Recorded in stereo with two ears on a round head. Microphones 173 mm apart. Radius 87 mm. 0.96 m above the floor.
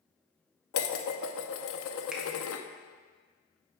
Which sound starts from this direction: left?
Dishes clattering, at 0.7 s.